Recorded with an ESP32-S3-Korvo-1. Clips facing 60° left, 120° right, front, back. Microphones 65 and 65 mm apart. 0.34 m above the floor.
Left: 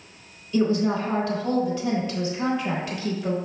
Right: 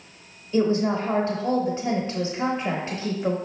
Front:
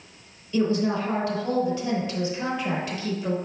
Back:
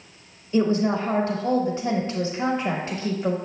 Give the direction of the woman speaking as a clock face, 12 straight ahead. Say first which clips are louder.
Even, back 2 dB; 5 o'clock.